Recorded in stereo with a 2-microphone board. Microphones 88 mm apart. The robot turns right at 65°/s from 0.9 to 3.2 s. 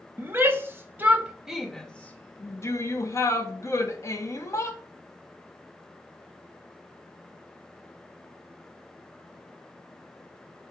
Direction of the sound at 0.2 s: 25° right (ahead or behind).